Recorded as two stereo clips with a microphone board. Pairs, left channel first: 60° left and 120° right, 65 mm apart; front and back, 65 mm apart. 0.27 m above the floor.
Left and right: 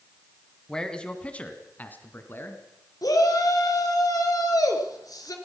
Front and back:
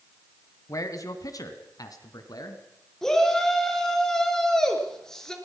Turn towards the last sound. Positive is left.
turn(degrees=80)